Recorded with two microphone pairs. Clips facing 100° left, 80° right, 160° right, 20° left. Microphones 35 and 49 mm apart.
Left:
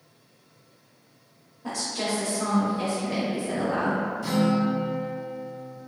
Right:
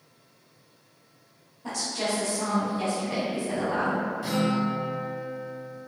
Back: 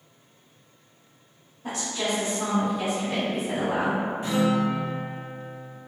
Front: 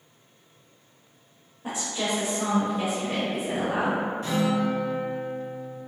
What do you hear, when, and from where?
1.6 s a woman speaking: 40° left, 1.0 m
4.2 s a guitar: 130° right, 1.3 m